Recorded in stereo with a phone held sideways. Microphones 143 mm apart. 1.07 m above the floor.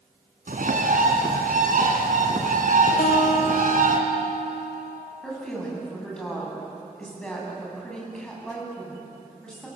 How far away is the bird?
About 3 m.